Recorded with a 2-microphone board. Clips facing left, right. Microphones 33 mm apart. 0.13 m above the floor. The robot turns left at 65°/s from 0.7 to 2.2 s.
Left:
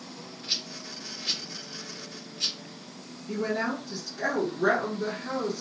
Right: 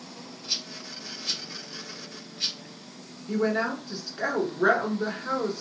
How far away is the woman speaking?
About 1.2 m.